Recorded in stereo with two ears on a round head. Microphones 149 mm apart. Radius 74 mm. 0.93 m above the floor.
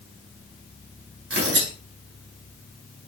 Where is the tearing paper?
80° right, 4 m.